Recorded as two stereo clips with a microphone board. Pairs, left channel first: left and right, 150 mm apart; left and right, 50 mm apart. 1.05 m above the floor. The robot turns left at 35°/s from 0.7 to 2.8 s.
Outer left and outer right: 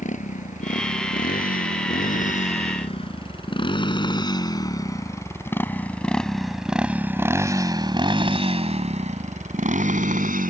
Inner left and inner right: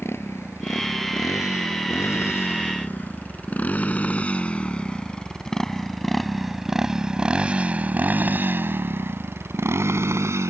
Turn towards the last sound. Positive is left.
turn(degrees=-70)  # may be behind; listen again after turning